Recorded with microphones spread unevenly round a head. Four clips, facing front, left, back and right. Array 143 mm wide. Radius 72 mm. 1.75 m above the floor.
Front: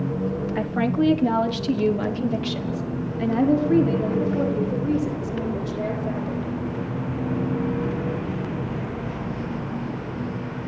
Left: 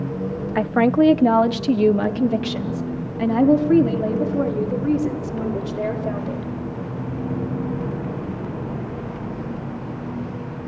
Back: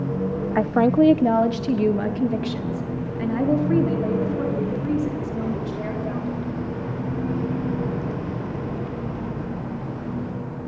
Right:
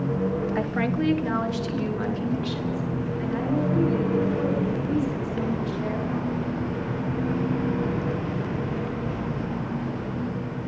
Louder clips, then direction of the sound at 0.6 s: Left 8 dB, back 6 dB; 150° left.